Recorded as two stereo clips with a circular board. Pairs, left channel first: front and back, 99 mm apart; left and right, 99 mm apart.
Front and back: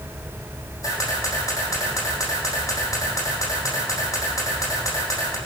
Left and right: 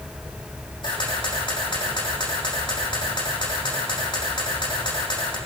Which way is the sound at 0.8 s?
55° left.